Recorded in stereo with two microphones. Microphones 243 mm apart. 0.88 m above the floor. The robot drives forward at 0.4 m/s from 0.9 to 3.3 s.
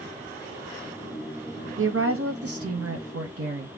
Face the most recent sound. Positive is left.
turn(degrees=-60)  # may be behind; listen again after turning